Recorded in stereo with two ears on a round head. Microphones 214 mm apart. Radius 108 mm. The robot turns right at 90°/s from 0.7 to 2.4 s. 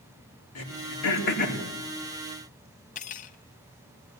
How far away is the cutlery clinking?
About 0.9 m.